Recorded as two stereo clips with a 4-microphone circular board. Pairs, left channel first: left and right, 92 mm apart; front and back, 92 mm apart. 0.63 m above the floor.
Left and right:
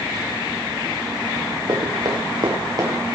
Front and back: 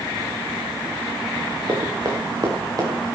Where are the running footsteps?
130° right, 5 m; by 3.2 s 135° right, 6 m.